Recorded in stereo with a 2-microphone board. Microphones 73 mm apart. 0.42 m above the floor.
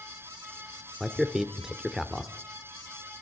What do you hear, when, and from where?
1.0 s a man speaking: 5° right (ahead or behind), 0.9 m